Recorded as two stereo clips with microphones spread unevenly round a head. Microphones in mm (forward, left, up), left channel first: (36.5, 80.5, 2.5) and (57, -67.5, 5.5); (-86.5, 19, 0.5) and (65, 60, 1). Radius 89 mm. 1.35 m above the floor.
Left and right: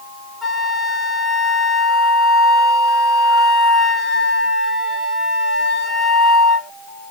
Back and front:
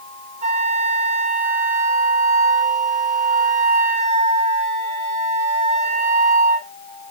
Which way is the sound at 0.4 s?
5° left.